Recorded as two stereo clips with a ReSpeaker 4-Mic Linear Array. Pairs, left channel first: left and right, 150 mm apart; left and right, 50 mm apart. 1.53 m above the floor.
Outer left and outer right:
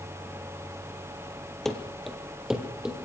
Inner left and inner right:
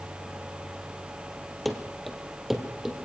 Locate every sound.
1.6 s running footsteps: 5° left (ahead or behind), 2.5 m; by 3.0 s 5° right (ahead or behind), 3 m